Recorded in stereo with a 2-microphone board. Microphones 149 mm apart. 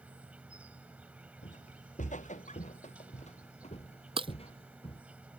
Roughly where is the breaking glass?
Right.